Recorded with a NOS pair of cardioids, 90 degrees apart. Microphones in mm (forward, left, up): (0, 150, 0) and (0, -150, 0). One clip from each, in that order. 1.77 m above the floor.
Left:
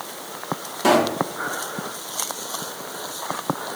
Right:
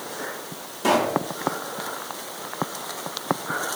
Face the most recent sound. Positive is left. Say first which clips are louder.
# left 3 dB
turn(degrees=25)